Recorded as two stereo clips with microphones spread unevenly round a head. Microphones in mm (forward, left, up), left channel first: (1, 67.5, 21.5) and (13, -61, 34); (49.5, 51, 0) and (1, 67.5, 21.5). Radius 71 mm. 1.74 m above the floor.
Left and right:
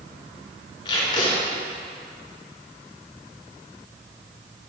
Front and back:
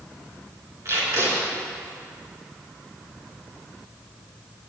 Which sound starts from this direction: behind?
Tape being pulled, at 0.8 s.